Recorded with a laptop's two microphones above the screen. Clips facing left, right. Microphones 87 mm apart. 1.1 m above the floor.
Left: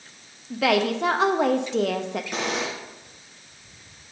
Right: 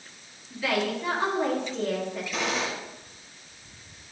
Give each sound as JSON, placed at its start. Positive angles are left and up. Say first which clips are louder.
{"t": 0.5, "sound": "a woman speaking", "louder": "left 6 dB", "side_deg": 80, "distance_m": 1.0}
{"t": 2.3, "sound": "a gunshot", "louder": "even", "side_deg": 75, "distance_m": 4.5}